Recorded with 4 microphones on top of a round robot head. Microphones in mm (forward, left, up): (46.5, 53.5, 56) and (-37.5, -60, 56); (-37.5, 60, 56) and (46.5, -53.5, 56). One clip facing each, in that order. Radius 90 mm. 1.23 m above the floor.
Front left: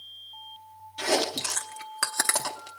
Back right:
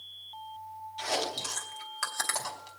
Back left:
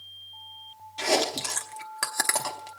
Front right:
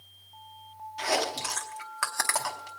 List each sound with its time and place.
1.0 s chewing: 70° left, 0.9 m